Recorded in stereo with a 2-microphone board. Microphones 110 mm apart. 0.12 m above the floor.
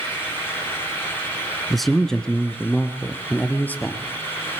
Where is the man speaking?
Centre (ahead or behind), 1.1 m; by 4.1 s 20° left (ahead or behind), 2.5 m.